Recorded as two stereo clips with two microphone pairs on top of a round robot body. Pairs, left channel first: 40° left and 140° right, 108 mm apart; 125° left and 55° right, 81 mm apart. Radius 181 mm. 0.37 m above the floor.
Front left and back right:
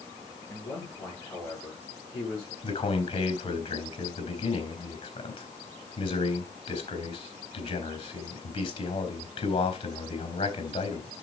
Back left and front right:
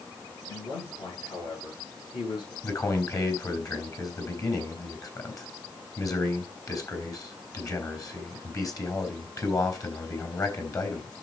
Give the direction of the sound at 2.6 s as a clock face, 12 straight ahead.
9 o'clock.